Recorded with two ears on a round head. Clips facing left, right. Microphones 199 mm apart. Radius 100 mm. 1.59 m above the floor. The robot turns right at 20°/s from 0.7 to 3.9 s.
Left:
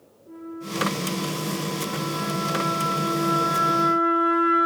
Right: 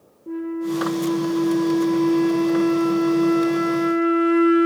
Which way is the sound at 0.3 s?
95° right.